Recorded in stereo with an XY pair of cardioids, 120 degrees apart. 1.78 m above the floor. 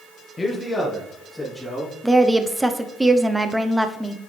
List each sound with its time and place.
0.4 s a man speaking: 25° left, 1.6 m; by 1.9 s 10° left, 3.5 m
2.0 s a woman speaking: 10° right, 1.0 m